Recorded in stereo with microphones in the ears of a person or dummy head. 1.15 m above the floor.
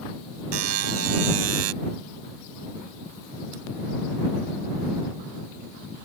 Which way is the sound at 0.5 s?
85° right.